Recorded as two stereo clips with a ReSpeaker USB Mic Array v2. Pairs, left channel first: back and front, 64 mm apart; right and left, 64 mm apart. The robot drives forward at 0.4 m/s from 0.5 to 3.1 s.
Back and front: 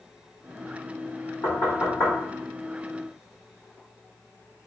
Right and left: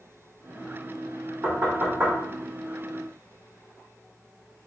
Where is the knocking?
145° left, 1.5 m; by 2.1 s 150° left, 1.7 m.